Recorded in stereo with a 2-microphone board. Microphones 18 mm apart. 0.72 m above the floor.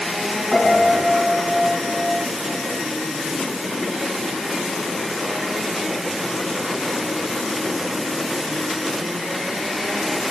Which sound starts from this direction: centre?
A piano, at 0.5 s.